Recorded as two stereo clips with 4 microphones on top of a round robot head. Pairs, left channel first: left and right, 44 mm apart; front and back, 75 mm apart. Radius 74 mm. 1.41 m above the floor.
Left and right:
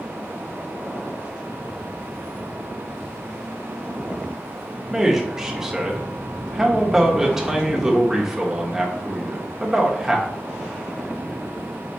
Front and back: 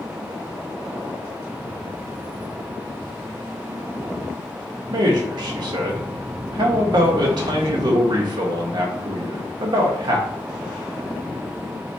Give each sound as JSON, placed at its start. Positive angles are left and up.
{"t": 4.9, "sound": "a man speaking", "azimuth_deg": -170, "distance_m": 1.2}